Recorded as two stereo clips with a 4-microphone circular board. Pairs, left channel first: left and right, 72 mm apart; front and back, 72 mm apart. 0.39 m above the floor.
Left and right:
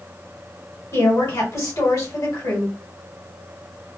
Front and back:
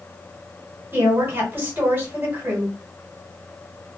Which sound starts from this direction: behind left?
A woman speaking, at 0.9 s.